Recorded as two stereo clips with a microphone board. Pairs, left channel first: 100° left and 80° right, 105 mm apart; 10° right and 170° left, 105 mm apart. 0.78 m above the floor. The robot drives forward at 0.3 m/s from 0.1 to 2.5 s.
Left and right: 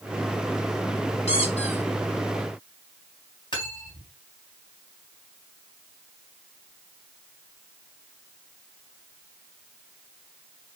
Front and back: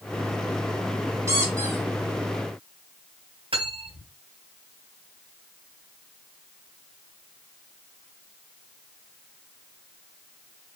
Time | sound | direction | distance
1.3 | a squeak | 110° left | 5 m
3.5 | cutlery clinking | 140° left | 3.5 m